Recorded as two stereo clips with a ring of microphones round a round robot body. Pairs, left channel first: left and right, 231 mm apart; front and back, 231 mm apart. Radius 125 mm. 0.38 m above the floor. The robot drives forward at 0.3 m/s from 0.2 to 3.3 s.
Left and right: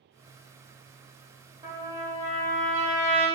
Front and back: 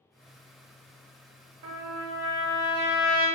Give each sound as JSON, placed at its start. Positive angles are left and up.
{"t": 1.6, "sound": "a trumpet", "azimuth_deg": -155, "distance_m": 0.7}